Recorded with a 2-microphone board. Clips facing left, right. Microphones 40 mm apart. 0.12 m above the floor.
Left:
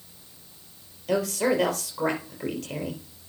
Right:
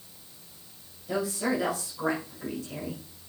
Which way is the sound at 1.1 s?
60° left (ahead or behind).